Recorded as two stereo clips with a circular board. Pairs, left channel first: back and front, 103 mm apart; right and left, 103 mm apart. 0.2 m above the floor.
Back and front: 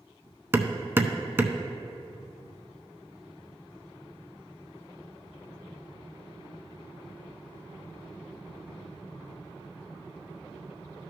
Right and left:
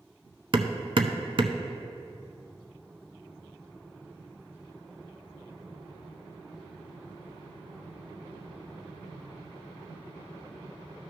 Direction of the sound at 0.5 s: 65° left.